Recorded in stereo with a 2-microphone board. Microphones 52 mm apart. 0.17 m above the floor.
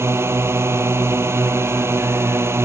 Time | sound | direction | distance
0.0 | a drone | 55° right (ahead or behind) | ?